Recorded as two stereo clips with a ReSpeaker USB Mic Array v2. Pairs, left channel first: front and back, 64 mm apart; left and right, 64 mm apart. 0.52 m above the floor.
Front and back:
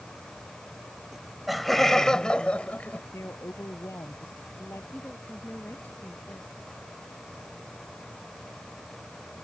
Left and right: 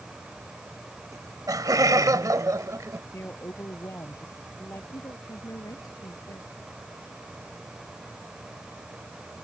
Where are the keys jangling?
No keys jangling in this recording.